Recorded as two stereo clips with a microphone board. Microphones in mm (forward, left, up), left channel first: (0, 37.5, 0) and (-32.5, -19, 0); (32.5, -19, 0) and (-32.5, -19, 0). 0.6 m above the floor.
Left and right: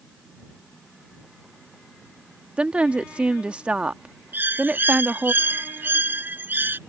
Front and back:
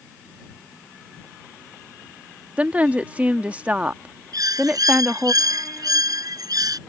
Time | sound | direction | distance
2.6 | a woman speaking | 160° right | ?
4.3 | a bird | straight behind | ?